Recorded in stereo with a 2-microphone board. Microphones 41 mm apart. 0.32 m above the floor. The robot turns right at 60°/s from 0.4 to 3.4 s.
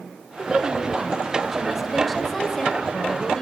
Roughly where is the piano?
I don't hear a piano.